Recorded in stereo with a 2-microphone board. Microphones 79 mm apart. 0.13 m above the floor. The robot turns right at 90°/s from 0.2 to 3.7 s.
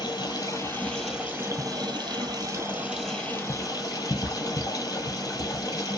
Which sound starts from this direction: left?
Running water, at 0.0 s.